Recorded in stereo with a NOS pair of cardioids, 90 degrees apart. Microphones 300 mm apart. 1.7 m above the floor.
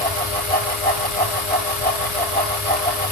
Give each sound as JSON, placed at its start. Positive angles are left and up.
{"t": 0.0, "sound": "a fan", "azimuth_deg": 30, "distance_m": 1.8}